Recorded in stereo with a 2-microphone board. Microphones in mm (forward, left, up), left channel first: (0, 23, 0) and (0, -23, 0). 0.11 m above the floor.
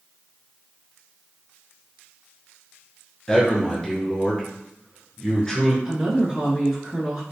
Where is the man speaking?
15° left (ahead or behind), 1.4 m.